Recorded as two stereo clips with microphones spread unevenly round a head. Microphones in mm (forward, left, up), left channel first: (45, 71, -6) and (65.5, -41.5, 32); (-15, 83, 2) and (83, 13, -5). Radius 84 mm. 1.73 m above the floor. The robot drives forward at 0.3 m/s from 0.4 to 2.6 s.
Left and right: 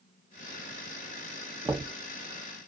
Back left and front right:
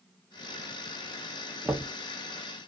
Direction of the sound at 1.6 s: 110° right.